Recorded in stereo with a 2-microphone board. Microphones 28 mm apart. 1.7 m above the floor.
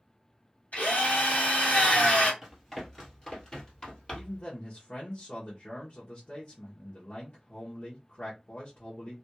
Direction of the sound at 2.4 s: 5° left (ahead or behind).